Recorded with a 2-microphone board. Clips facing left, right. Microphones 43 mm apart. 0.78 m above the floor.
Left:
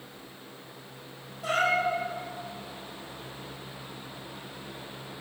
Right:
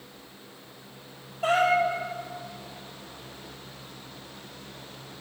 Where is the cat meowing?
75° right (ahead or behind), 3.5 m.